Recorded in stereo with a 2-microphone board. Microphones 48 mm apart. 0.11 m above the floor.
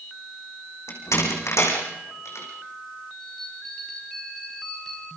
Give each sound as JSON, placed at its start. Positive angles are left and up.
{"t": 0.9, "sound": "a door slam", "side_deg": 75, "distance_m": 6.0}
{"t": 3.2, "sound": "a bell", "side_deg": 10, "distance_m": 9.0}